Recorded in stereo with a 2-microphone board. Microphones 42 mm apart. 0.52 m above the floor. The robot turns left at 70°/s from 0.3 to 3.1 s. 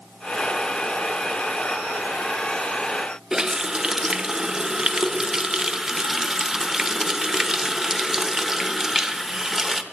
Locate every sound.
3.3 s a running tap: 15° right (ahead or behind), 0.8 m